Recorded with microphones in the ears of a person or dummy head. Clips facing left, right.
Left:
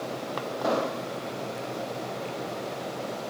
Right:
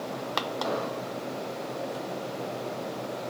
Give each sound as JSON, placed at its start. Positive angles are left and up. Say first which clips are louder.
{"t": 0.6, "sound": "an explosion", "louder": "left 3 dB", "side_deg": 65, "distance_m": 1.1}